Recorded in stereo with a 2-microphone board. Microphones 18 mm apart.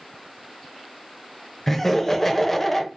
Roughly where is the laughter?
Centre.